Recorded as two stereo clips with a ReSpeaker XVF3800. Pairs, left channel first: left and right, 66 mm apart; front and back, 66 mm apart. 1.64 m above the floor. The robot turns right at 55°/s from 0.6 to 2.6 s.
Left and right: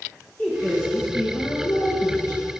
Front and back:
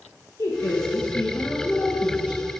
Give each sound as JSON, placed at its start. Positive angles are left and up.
{"t": 0.4, "sound": "a woman speaking", "azimuth_deg": 20, "distance_m": 1.7}